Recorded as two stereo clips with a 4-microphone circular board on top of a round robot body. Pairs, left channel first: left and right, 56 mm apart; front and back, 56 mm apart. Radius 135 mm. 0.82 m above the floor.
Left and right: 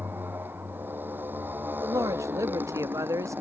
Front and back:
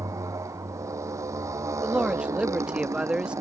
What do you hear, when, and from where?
0.0 s a motorcycle: 150° right
1.8 s a man speaking: 105° right